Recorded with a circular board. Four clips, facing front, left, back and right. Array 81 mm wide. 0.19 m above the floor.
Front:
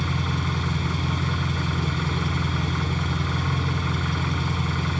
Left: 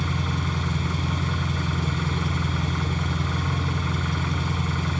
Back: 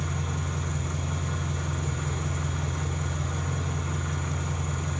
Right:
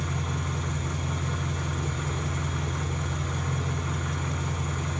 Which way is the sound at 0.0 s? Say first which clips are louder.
Left 4 dB, front 6 dB; 35° left.